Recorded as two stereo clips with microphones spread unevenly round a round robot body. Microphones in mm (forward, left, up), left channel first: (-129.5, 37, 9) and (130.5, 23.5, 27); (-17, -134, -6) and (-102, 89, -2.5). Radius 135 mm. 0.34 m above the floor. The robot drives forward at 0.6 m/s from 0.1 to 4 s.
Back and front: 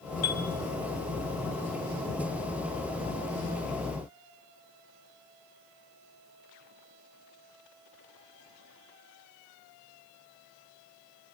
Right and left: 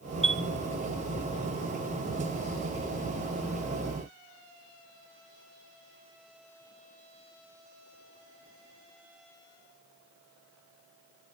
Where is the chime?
175° left, 1.6 m.